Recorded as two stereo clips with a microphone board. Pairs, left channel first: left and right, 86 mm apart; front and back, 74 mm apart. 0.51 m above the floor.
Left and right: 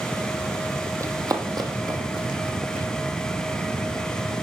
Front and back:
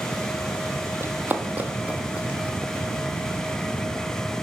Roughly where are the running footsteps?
Behind right.